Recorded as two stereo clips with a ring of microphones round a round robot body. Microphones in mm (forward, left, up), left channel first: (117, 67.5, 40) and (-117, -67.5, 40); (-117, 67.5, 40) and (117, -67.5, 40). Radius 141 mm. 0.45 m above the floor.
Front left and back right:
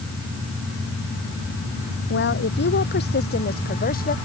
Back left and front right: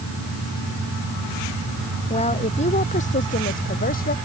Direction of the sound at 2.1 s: 80° left.